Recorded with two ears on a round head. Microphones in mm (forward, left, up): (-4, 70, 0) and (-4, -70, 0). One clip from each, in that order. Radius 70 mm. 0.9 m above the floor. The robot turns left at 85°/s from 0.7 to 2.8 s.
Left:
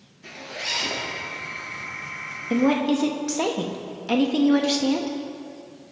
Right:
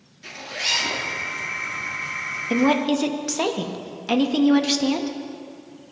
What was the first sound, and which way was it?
A zipper, 50° right (ahead or behind).